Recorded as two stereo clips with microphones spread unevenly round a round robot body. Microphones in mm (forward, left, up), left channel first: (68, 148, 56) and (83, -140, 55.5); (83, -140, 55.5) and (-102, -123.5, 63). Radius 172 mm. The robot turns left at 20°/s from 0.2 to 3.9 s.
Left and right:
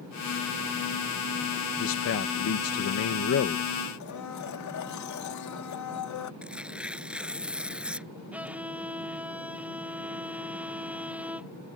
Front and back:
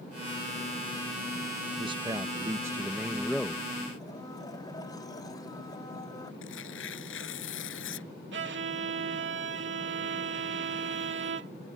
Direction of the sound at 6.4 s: Straight ahead.